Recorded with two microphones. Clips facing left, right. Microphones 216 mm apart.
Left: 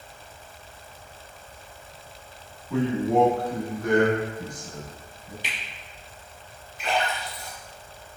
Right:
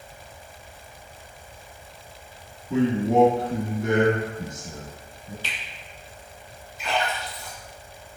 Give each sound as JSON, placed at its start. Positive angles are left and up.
{"t": 2.7, "sound": "a man speaking", "side_deg": -25, "distance_m": 1.1}
{"t": 5.4, "sound": "a finger snap", "side_deg": 15, "distance_m": 1.1}
{"t": 6.8, "sound": "a splash", "side_deg": 60, "distance_m": 1.7}